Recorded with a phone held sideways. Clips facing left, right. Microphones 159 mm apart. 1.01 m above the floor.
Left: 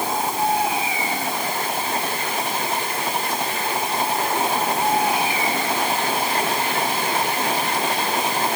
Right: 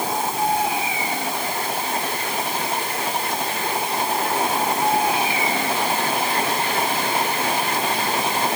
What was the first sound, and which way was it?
Only background noise.